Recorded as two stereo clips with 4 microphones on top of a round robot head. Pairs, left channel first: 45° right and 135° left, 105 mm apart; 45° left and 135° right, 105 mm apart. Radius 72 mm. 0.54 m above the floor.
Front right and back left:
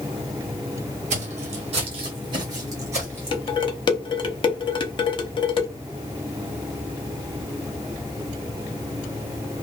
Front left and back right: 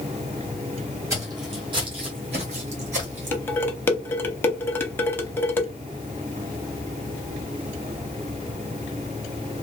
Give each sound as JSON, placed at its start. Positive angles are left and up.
{"t": 1.1, "sound": "footsteps", "azimuth_deg": 160, "distance_m": 1.5}
{"t": 3.3, "sound": "dishes clattering", "azimuth_deg": -25, "distance_m": 0.8}